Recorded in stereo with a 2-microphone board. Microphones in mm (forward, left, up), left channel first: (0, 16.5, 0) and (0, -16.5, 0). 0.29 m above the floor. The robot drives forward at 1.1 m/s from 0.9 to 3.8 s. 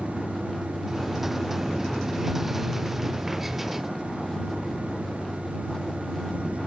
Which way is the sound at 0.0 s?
15° left (ahead or behind).